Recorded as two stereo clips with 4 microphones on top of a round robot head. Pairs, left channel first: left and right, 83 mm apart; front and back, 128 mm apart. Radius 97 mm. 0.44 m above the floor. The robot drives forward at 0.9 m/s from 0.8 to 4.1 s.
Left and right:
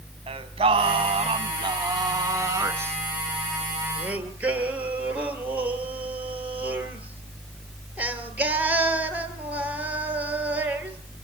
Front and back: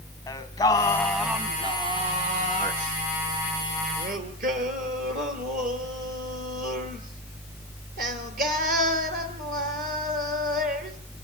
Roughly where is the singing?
Right.